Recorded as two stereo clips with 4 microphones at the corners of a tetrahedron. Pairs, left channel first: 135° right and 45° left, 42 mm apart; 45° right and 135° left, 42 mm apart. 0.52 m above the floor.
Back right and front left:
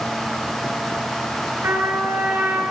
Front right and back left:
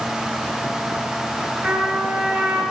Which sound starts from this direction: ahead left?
A trumpet, at 1.6 s.